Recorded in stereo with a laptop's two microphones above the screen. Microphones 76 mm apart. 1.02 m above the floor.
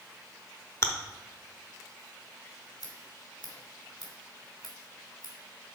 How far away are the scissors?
About 2.5 m.